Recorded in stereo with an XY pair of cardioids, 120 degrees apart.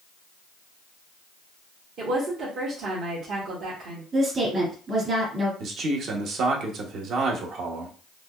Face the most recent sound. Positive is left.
turn(degrees=-60)